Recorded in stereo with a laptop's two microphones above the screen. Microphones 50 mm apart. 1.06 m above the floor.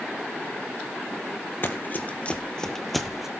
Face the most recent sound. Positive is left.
turn(degrees=-10)  # may be behind; listen again after turning